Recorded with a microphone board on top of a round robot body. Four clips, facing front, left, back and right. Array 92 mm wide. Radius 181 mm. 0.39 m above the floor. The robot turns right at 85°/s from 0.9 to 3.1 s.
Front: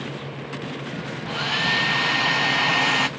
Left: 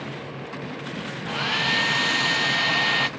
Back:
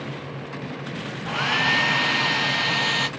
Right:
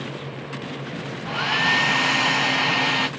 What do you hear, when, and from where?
1.2 s a hair dryer: 165° right, 0.9 m; by 3.1 s 10° right, 0.9 m